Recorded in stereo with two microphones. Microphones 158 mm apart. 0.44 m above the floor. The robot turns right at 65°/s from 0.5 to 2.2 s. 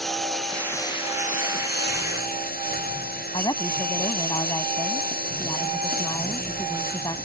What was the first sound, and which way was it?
A lawn mower, centre (ahead or behind).